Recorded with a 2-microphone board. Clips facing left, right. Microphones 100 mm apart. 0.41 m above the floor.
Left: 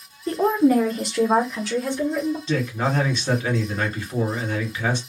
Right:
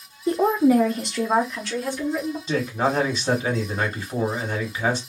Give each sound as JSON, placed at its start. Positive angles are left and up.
{"t": 0.3, "sound": "a woman speaking", "side_deg": -15, "distance_m": 0.7}
{"t": 2.5, "sound": "a man speaking", "side_deg": -15, "distance_m": 1.4}